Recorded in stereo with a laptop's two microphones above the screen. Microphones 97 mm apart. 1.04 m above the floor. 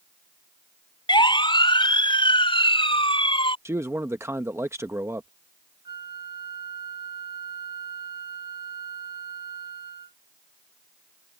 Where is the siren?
55° left (ahead or behind); by 3.5 s 65° left (ahead or behind).